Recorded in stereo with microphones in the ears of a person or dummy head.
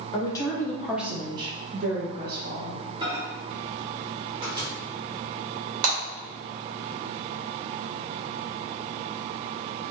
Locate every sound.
0.1 s a woman speaking: 30° left (ahead or behind), 1.1 m; by 2.8 s 65° right (ahead or behind), 1.6 m
3.0 s a microwave: 25° right (ahead or behind), 1.0 m
5.8 s breaking glass: 55° right (ahead or behind), 2.0 m